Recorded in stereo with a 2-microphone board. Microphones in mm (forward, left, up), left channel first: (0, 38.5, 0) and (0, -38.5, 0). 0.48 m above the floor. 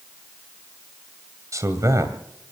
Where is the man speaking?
45° right (ahead or behind), 2.5 m.